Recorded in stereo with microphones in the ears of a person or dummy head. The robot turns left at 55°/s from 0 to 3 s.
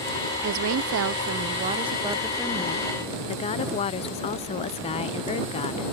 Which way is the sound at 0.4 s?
70° right.